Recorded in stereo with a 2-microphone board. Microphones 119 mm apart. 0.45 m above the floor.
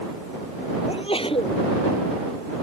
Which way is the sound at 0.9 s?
55° left (ahead or behind).